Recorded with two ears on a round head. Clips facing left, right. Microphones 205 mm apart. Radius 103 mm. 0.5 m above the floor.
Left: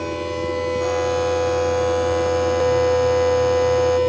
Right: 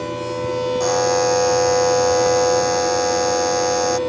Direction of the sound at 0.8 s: 60° right (ahead or behind).